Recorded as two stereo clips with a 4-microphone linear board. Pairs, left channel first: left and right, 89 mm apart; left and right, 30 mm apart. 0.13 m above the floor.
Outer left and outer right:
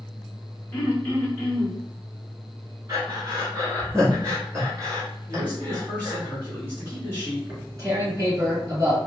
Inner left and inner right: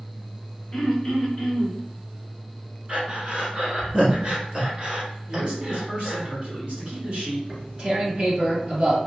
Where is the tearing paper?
40° right (ahead or behind), 1.6 m.